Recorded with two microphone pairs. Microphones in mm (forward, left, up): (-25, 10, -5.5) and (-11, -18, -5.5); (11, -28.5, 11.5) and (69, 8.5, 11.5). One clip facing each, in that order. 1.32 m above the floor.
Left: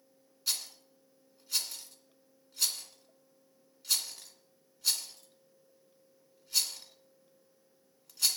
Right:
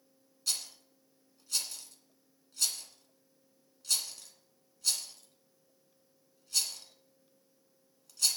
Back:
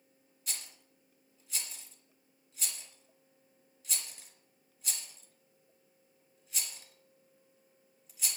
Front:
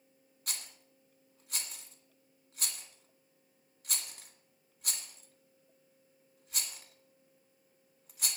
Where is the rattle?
35° left, 2 m.